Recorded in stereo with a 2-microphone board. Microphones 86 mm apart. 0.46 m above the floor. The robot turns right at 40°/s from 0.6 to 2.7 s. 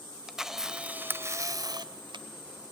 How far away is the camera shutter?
About 0.7 m.